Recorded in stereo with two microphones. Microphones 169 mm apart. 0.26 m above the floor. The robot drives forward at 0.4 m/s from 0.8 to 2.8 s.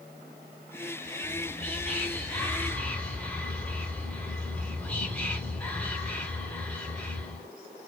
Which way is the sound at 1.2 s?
10° left (ahead or behind).